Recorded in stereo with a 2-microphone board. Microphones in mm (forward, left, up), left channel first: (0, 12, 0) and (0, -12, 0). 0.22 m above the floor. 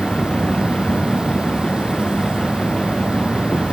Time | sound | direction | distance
0.0 | an insect | 40° right (ahead or behind) | ?